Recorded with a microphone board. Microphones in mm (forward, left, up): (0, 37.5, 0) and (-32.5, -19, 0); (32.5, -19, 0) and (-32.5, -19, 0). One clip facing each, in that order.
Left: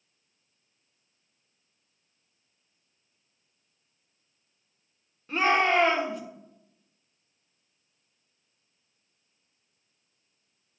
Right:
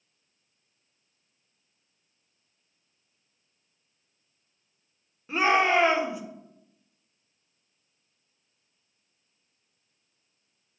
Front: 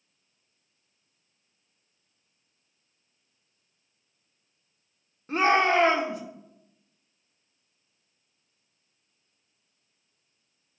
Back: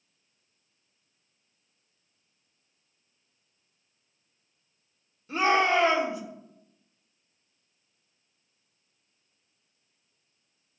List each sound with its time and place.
5.3 s a shout: 40° right, 1.5 m